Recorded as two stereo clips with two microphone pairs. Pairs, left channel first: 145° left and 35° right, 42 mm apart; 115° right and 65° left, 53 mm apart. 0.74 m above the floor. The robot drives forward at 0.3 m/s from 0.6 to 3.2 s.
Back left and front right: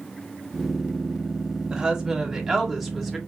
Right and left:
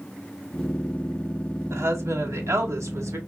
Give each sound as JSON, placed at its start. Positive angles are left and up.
{"t": 1.7, "sound": "a woman speaking", "azimuth_deg": 45, "distance_m": 1.4}